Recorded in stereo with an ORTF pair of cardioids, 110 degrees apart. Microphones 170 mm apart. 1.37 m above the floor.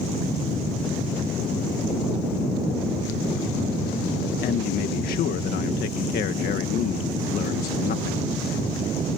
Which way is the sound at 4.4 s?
65° left.